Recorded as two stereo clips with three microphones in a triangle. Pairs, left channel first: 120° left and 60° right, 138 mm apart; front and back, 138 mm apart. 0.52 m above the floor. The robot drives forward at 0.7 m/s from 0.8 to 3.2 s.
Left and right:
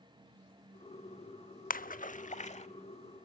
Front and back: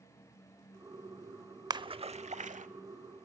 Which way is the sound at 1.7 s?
120° left.